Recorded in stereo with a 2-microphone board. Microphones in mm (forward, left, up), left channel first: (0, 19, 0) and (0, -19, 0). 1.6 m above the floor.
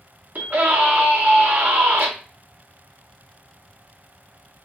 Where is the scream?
50° right (ahead or behind), 2.5 m.